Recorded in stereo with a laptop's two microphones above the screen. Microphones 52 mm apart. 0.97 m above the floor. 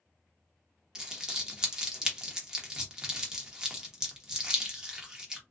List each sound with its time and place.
0.9 s crumpling: 15° right (ahead or behind), 0.9 m